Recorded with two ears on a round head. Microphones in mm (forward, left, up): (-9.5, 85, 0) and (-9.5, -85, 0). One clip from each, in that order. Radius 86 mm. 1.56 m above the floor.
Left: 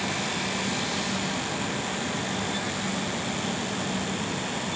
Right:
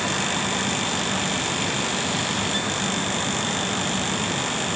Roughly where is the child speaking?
I don't hear a child speaking.